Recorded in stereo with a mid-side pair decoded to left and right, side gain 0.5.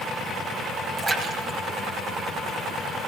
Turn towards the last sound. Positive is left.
turn(degrees=-40)